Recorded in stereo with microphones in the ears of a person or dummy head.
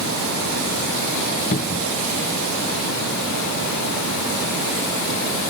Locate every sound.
1.5 s a cupboard door: 40° left (ahead or behind)